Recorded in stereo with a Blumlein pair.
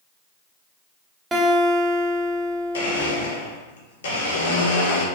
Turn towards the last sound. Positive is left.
turn(degrees=65)